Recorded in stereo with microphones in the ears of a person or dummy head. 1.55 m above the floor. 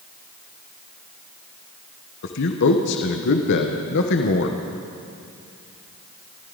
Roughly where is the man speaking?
Left.